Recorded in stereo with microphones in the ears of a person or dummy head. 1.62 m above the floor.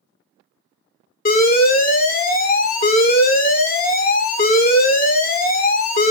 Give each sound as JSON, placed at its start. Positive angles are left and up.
{"t": 1.2, "sound": "an alarm", "side_deg": 40, "distance_m": 0.6}